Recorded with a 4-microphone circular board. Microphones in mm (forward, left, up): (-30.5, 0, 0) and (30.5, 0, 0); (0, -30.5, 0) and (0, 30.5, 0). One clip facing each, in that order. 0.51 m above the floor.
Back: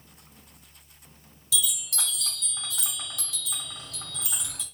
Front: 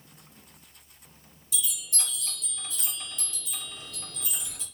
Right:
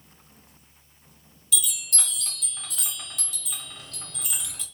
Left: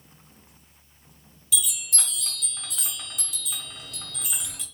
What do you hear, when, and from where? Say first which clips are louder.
1.5 s a chime: back 5 dB, even; 175° left, 1.9 m